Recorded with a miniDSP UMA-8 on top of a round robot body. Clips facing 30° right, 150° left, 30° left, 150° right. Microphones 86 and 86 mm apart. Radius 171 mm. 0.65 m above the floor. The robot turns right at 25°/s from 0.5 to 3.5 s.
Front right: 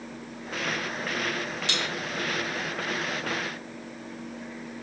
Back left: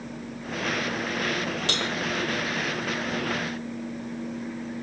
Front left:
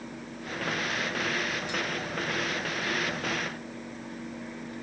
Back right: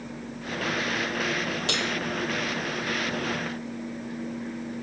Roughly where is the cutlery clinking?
Behind.